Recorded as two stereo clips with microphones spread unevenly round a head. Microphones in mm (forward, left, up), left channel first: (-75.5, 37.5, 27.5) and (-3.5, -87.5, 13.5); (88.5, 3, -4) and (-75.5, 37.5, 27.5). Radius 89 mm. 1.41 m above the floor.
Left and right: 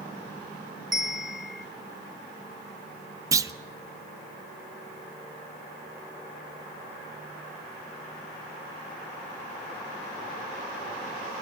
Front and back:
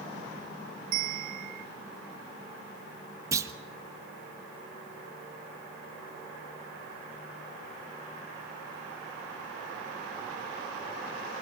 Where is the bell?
145° right, 0.9 m.